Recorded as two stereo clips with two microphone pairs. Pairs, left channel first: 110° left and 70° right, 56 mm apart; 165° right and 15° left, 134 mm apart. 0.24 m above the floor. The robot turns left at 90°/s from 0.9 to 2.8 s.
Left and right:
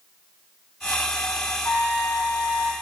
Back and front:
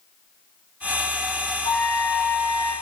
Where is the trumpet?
165° left, 6 m; by 2.7 s 70° left, 6 m.